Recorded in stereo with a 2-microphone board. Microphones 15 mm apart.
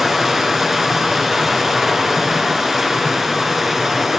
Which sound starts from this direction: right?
Running water, at 0.0 s.